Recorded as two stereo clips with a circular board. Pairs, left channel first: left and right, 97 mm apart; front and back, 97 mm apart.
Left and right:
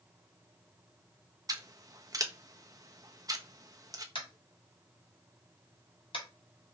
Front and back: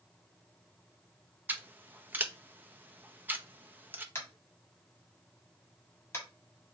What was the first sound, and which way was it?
Scissors, 120° right.